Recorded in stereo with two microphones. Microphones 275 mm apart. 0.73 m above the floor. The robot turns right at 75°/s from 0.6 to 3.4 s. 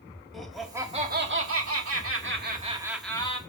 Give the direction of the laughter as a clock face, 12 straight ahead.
6 o'clock.